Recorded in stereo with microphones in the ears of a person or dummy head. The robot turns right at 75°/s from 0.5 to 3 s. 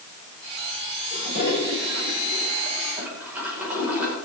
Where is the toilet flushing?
45° left, 5 m; by 4.1 s 170° right, 5 m.